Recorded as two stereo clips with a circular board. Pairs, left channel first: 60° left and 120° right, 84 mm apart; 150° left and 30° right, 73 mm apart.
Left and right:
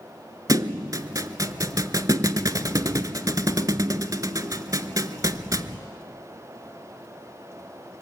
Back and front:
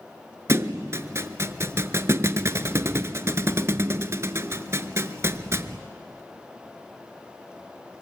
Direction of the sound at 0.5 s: 75° right.